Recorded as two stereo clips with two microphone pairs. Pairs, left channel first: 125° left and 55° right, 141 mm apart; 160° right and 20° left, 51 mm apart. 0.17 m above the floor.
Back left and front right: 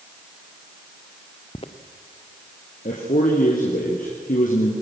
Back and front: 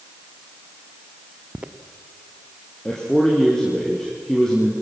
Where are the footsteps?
80° left, 1.4 m.